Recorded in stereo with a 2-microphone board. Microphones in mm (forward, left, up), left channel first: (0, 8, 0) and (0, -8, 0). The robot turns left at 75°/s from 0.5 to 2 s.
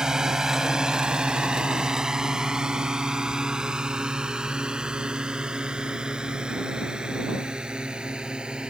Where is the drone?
45° right (ahead or behind); by 8.7 s 80° right.